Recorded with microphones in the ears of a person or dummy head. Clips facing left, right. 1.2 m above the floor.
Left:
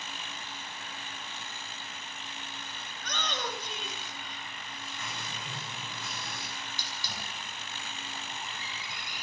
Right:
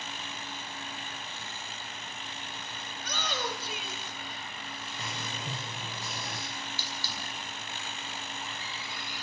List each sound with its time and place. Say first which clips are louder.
2.9 s a shout: right 1 dB; 10° right (ahead or behind), 6 m
5.0 s writing: right 4 dB; 35° right (ahead or behind), 6.5 m
6.5 s a hiss: right 2 dB; 20° left (ahead or behind), 5 m